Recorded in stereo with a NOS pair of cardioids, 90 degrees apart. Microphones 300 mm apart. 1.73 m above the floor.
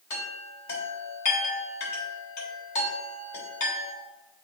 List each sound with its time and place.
0.1 s a chime: 65° left, 3.5 m